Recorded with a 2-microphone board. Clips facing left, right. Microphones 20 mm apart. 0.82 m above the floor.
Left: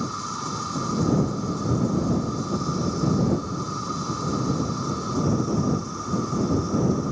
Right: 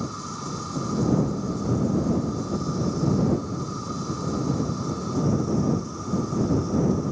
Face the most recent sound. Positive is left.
turn(degrees=15)  # may be behind; listen again after turning